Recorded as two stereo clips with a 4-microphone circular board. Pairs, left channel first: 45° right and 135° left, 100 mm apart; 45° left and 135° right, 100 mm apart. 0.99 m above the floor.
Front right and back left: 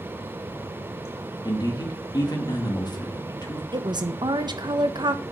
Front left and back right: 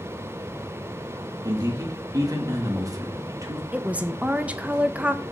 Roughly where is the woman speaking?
Behind left.